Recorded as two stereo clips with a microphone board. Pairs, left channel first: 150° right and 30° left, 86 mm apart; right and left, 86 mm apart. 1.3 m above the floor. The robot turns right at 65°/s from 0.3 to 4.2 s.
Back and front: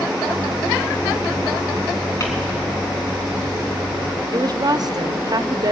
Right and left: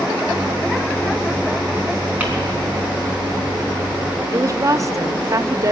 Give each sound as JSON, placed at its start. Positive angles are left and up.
{"t": 2.2, "sound": "crumpling", "azimuth_deg": 160, "distance_m": 3.5}
{"t": 4.3, "sound": "a woman speaking", "azimuth_deg": 50, "distance_m": 0.5}